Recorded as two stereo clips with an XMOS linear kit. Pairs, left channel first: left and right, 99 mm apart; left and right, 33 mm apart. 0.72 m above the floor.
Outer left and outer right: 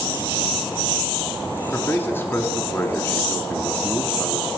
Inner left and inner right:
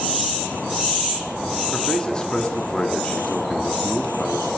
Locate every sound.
1.7 s a man speaking: 20° left (ahead or behind), 1.4 m